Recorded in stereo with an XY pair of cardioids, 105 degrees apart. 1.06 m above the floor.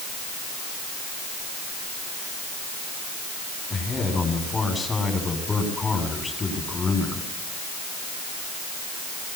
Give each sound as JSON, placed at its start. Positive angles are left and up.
{"t": 3.7, "sound": "a man speaking", "azimuth_deg": 25, "distance_m": 9.0}